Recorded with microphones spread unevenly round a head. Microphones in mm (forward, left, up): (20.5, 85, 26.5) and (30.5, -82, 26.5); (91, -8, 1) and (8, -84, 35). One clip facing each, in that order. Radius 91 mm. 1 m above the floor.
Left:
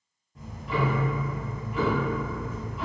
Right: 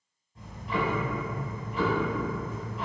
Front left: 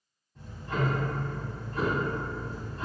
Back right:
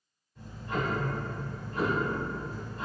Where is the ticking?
95° left, 1.3 m.